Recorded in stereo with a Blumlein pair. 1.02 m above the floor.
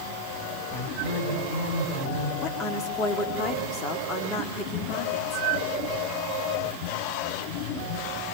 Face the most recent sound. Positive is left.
turn(degrees=30)